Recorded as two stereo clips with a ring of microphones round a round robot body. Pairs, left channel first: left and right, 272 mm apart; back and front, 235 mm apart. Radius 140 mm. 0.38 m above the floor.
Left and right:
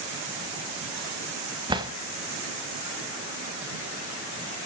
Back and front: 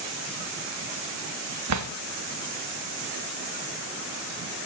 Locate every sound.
1.7 s a drawer: 15° right, 0.9 m